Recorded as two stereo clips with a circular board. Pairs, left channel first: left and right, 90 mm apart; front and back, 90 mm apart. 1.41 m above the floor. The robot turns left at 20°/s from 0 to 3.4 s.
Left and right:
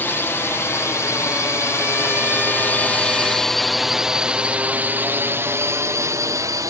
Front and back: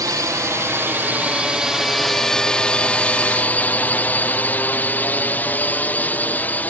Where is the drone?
150° left; by 6.7 s 65° right.